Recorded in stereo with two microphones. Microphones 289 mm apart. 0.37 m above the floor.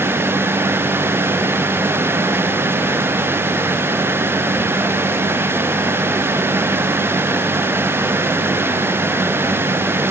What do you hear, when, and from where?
Only background noise.